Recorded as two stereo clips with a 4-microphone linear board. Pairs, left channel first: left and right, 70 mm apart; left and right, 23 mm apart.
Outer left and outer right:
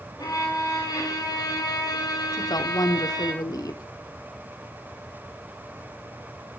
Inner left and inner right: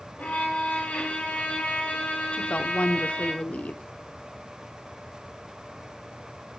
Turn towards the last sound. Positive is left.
turn(degrees=65)  # may be behind; listen again after turning